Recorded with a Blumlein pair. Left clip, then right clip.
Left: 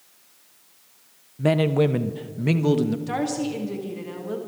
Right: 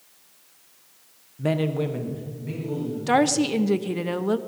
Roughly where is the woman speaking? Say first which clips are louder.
Right 6 dB; ahead right.